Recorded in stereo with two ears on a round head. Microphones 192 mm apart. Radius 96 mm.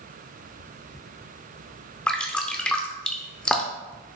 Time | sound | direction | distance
2.1 | dripping | 5° left (ahead or behind) | 0.7 m